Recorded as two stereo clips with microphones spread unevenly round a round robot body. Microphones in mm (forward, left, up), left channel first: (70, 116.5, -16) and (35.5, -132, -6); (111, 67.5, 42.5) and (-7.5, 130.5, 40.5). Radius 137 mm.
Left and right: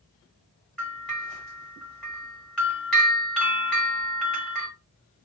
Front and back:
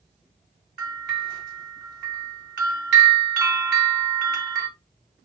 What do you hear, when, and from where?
0.8 s a bell: 170° left, 1.0 m